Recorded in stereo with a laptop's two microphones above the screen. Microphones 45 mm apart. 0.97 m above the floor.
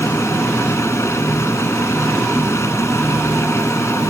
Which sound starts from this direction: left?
A machine running, at 0.0 s.